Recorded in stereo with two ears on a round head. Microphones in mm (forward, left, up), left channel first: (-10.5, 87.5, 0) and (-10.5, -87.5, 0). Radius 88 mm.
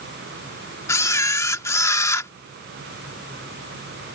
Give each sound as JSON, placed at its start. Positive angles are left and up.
{"t": 0.9, "sound": "a camera shutter", "side_deg": 15}